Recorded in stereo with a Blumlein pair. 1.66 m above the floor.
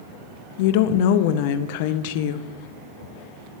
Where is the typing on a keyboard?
I don't hear typing on a keyboard.